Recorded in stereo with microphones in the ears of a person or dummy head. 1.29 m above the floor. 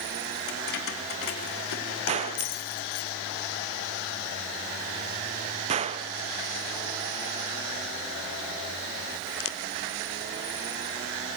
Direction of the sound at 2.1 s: 35° right (ahead or behind).